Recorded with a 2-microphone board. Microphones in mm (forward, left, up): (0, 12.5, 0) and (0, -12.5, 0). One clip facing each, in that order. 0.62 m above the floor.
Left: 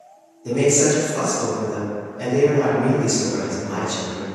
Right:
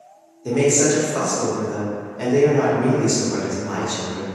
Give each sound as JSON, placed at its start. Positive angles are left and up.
{"t": 0.5, "sound": "a man speaking", "side_deg": -35, "distance_m": 0.9}